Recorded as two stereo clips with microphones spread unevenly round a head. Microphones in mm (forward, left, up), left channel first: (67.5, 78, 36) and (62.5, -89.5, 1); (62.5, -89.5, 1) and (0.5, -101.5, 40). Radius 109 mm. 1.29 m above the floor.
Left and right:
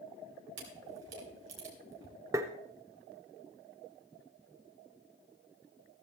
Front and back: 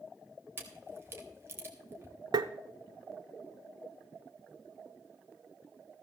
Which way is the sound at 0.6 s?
125° right.